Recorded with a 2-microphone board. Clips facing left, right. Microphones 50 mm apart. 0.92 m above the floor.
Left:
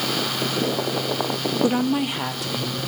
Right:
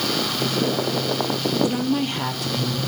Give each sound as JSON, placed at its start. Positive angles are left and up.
{"t": 1.6, "sound": "a woman speaking", "side_deg": 30, "distance_m": 0.9}